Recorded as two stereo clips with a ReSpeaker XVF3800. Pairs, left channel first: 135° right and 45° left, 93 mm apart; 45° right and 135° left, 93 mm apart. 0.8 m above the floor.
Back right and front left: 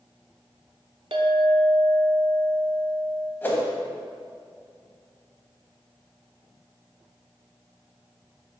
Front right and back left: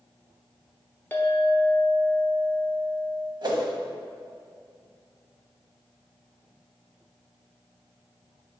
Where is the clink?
25° left, 0.8 m.